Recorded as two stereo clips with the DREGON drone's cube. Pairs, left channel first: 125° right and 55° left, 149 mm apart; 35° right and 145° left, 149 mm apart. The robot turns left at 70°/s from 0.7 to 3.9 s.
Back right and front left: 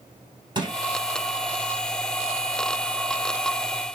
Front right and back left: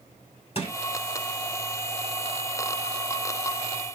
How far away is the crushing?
About 1.5 m.